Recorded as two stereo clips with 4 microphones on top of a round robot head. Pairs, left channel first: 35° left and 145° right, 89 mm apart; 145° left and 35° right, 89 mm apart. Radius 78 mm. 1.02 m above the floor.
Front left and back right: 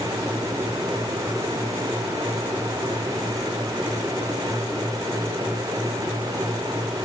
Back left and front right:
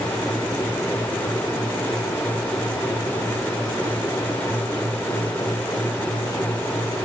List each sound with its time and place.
Only background noise.